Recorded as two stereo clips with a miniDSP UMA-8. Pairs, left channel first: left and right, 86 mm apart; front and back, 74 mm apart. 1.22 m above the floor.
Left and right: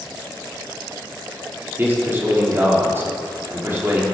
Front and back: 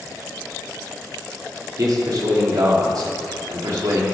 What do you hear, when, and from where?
1.8 s a man speaking: 150° right, 3 m